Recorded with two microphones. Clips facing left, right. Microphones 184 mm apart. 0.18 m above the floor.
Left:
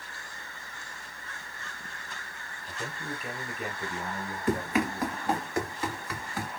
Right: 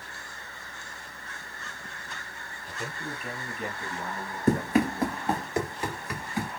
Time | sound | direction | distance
2.7 | a man speaking | 5° right (ahead or behind) | 1.2 m
4.5 | running footsteps | 40° right (ahead or behind) | 1.0 m